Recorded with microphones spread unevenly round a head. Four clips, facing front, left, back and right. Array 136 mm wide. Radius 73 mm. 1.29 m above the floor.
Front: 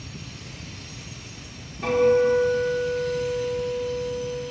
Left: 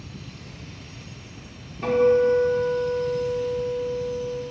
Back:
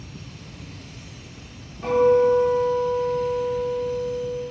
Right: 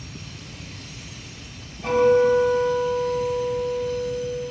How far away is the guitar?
About 3 m.